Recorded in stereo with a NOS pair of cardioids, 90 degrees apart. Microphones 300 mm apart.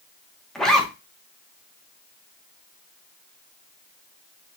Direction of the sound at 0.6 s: Straight ahead.